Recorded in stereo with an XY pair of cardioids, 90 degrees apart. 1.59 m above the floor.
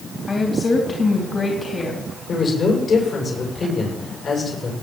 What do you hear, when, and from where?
0.3 s a woman speaking: 35° left, 3.5 m
2.3 s a man speaking: 60° left, 7.5 m